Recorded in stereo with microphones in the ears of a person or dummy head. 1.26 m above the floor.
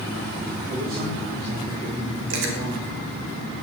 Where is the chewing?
85° right, 4.5 m.